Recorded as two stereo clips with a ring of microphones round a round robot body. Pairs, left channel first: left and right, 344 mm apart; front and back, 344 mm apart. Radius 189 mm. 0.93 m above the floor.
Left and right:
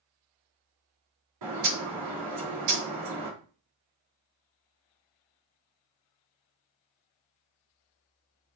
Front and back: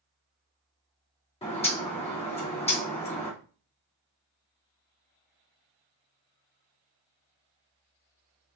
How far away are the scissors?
No scissors in this recording.